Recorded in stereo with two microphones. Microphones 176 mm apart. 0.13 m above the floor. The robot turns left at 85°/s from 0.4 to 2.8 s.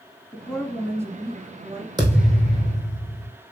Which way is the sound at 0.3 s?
10° left (ahead or behind).